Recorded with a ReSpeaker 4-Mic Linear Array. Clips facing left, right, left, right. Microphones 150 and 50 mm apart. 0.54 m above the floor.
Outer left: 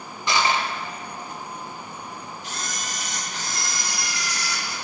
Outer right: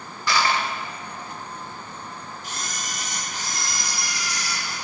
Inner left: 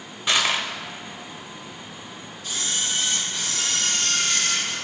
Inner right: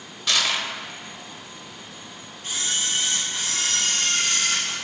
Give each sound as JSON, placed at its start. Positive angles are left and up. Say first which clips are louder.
{"t": 0.3, "sound": "crushing", "louder": "even, inner left 2 dB", "side_deg": 20, "distance_m": 0.7}
{"t": 2.4, "sound": "a camera shutter", "louder": "even, inner right 1 dB", "side_deg": -45, "distance_m": 3.0}